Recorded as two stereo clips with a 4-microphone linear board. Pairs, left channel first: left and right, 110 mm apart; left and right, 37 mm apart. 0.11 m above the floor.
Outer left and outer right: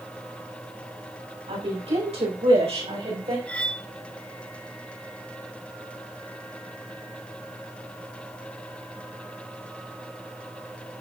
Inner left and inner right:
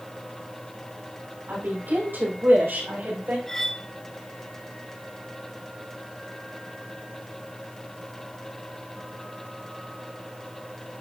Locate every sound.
1.5 s a woman speaking: 75° right (ahead or behind), 5.5 m; by 3.4 s 80° right, 6 m
3.5 s cutlery clinking: 10° left (ahead or behind), 0.7 m